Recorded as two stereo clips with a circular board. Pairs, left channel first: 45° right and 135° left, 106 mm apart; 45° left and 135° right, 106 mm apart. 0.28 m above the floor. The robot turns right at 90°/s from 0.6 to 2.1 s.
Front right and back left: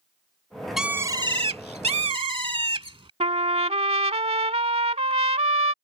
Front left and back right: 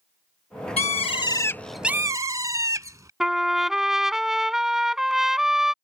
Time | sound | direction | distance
0.8 | a bird | 45° left | ?
3.2 | a trumpet | 140° left | ?